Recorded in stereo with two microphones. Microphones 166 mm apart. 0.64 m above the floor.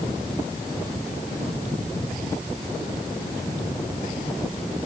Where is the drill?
I don't hear a drill.